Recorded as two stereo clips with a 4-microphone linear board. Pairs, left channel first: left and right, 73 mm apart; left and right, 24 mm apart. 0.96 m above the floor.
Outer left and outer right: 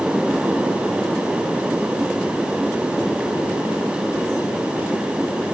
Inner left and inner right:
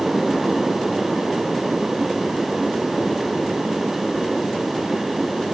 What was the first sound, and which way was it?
Only background noise.